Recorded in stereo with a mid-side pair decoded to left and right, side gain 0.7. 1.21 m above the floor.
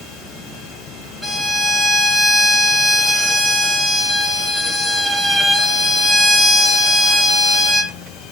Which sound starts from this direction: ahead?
A violin, at 1.2 s.